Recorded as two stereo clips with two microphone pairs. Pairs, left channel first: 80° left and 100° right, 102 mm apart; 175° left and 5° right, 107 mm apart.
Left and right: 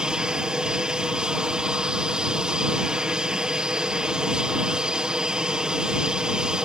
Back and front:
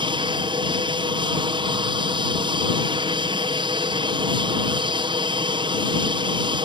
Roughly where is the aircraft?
Ahead.